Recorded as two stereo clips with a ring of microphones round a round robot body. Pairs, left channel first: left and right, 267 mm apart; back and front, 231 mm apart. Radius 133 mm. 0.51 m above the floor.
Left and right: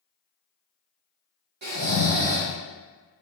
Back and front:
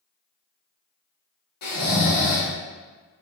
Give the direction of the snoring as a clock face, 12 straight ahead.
5 o'clock.